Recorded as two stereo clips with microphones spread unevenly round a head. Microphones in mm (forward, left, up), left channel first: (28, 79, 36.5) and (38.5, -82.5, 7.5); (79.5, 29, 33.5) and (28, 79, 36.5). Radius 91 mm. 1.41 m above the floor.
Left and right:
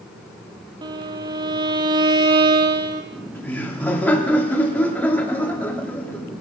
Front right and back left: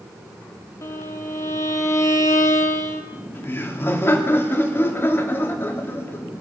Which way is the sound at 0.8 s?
25° right.